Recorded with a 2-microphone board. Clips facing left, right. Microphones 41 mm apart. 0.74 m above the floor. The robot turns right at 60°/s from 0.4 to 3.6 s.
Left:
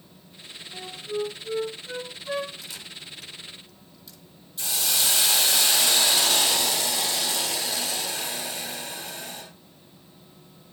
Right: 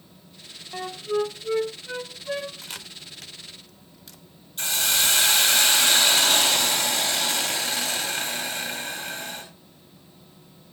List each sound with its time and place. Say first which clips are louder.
0.7 s a flute: right 5 dB; 80° right, 0.9 m; by 2.5 s 15° left (ahead or behind), 0.9 m
2.6 s a camera shutter: right 1 dB; 50° right (ahead or behind), 0.9 m; by 4.2 s 65° right (ahead or behind), 0.9 m
4.6 s a hiss: right 3 dB; 65° right (ahead or behind), 3.5 m